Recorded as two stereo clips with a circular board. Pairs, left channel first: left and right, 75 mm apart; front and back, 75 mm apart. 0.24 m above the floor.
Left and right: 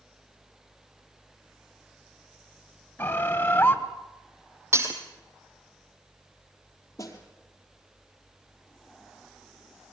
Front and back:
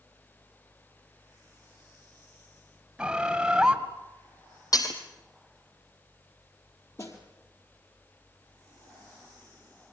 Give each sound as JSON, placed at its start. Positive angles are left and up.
{"t": 3.0, "sound": "a bird", "azimuth_deg": 115, "distance_m": 1.5}
{"t": 4.7, "sound": "breaking glass", "azimuth_deg": -35, "distance_m": 3.0}
{"t": 7.0, "sound": "a snare drum", "azimuth_deg": 45, "distance_m": 4.0}